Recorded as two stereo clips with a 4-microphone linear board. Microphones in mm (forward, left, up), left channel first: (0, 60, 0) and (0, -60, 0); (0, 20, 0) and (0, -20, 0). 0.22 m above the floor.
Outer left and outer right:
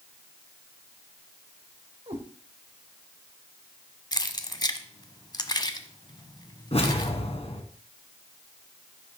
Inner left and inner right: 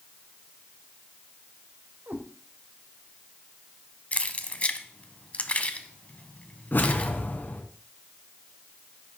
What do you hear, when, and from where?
2.1 s a cat meowing: 65° right (ahead or behind), 3 m
4.1 s keys jangling: 35° left (ahead or behind), 1.0 m
6.7 s a whoosh: 55° left (ahead or behind), 2 m